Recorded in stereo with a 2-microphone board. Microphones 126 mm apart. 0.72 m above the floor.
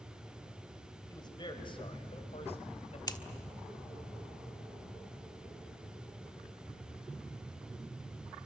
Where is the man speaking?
35° left (ahead or behind), 4 m; by 3.0 s 60° left (ahead or behind), 4 m.